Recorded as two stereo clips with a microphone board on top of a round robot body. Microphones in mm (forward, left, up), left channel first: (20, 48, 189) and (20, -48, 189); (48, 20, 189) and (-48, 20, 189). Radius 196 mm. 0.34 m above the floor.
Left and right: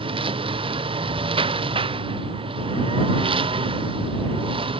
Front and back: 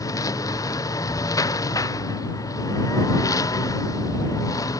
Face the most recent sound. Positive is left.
turn(degrees=-60)